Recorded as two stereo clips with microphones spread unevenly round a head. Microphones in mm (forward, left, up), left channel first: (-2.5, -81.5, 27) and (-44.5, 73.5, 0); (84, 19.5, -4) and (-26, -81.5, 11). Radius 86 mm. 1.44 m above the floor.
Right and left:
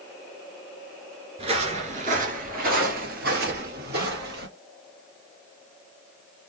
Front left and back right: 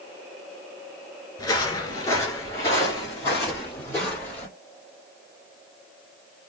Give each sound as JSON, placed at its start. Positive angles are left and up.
{"t": 1.4, "sound": "footsteps", "azimuth_deg": 85, "distance_m": 1.4}